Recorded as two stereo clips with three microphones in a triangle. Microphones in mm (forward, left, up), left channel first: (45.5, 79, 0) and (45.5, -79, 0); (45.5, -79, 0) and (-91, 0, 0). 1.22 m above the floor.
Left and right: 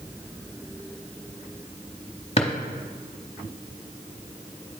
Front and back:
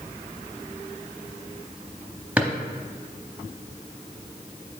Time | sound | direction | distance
2.4 | a drawer | 75° left | 0.8 m